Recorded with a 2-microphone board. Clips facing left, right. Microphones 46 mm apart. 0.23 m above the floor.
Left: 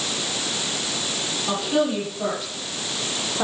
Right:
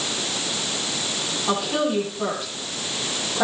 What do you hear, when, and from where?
1.5 s a woman speaking: centre (ahead or behind), 9.5 m